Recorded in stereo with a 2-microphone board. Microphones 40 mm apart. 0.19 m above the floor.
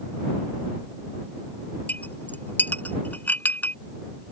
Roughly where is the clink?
Left.